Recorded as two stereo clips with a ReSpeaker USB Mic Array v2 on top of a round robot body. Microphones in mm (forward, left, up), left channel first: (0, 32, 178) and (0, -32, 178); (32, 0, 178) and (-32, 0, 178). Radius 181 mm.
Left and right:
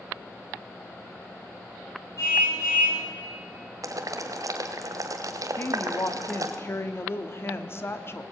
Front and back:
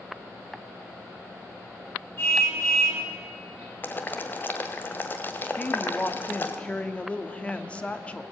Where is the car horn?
55° left, 7.5 m.